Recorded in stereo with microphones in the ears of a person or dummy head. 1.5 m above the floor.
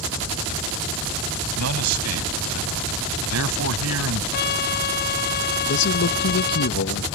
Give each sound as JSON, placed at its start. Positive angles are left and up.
{"t": 1.6, "sound": "a man speaking", "side_deg": -90}
{"t": 4.3, "sound": "a trumpet", "side_deg": 55}
{"t": 5.7, "sound": "a man speaking", "side_deg": 60}